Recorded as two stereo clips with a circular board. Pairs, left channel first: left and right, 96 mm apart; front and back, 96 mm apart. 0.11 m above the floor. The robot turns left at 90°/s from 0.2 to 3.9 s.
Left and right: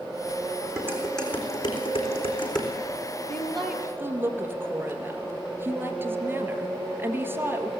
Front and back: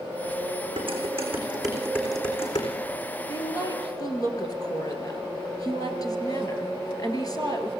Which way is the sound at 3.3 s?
25° left.